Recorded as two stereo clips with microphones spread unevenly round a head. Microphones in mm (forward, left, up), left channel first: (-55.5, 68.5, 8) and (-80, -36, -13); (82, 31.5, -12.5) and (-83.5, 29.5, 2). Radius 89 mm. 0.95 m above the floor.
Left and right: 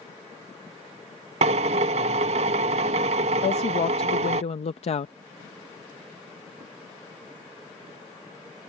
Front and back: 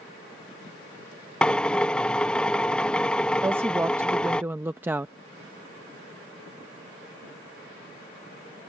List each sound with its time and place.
1.4 s a drill: 80° right
3.4 s a woman speaking: 100° left